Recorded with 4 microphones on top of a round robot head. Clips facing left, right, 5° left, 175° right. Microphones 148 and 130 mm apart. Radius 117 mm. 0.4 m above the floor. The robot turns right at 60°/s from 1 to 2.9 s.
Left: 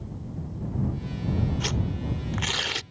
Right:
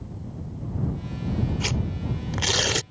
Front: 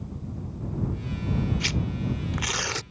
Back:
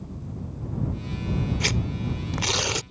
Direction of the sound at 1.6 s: 175° right.